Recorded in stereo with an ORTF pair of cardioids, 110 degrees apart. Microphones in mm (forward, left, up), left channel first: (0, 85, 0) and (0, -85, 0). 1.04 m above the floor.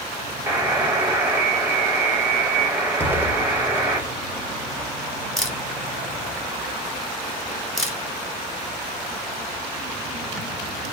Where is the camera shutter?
5° left, 0.7 m.